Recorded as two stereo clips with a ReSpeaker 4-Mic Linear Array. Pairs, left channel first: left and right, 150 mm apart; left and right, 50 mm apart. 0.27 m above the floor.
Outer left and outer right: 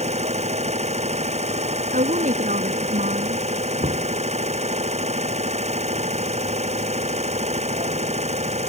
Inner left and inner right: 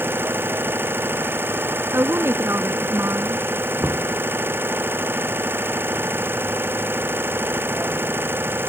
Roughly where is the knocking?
Right.